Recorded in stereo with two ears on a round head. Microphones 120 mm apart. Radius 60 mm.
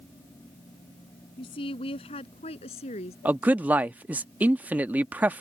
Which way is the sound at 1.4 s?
40° left (ahead or behind).